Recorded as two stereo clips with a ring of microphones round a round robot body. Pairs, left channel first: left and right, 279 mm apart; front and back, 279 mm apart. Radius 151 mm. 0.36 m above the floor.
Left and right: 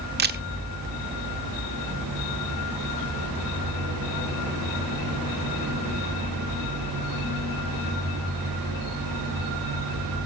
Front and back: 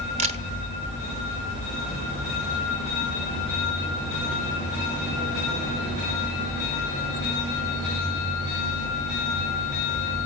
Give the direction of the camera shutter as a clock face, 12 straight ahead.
4 o'clock.